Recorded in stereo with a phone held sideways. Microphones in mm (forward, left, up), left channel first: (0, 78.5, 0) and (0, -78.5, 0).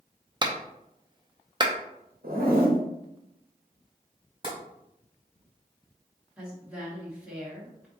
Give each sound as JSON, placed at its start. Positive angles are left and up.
{"t": 0.4, "sound": "a clap", "side_deg": -30, "distance_m": 0.6}
{"t": 2.2, "sound": "a zipper", "side_deg": -65, "distance_m": 1.1}
{"t": 4.4, "sound": "tapping", "side_deg": -30, "distance_m": 1.5}
{"t": 6.4, "sound": "a woman speaking", "side_deg": -10, "distance_m": 1.4}